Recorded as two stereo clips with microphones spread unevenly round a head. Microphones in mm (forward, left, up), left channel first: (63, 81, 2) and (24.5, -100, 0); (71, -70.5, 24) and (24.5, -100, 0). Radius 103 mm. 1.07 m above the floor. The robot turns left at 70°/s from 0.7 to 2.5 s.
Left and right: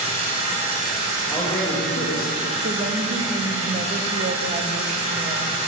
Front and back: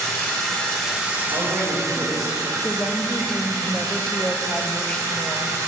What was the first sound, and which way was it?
Running water, 40° right.